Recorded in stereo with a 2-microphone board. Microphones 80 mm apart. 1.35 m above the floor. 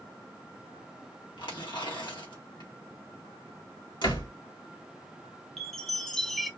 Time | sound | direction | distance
1.4 | tearing paper | 75° left (ahead or behind) | 1.3 m
4.0 | a door slam | 75° left (ahead or behind) | 1.9 m
5.6 | a chime | 5° left (ahead or behind) | 0.6 m